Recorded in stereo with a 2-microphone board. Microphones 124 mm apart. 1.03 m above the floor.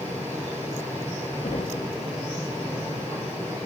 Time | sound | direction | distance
1.4 | knocking | 65° left (ahead or behind) | 1.0 m